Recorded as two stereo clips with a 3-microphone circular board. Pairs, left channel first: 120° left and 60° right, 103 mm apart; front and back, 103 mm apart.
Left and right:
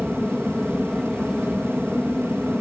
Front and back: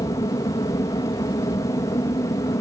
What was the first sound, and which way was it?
An aircraft, 30° left.